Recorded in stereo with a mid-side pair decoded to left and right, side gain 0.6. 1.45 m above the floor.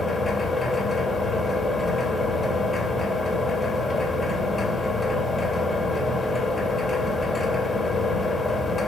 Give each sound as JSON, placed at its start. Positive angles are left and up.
{"t": 0.0, "sound": "a machine running", "azimuth_deg": 25, "distance_m": 2.5}